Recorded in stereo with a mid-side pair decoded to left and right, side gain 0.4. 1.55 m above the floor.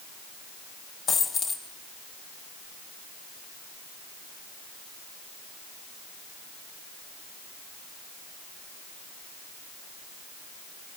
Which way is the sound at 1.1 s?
55° left.